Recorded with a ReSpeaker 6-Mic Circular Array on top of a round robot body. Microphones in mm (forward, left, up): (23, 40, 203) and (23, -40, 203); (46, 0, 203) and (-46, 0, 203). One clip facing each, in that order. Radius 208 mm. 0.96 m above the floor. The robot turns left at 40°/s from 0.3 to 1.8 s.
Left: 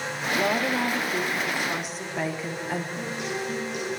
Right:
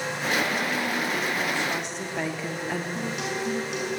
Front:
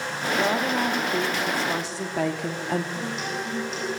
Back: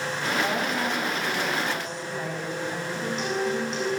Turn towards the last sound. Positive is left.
turn(degrees=-85)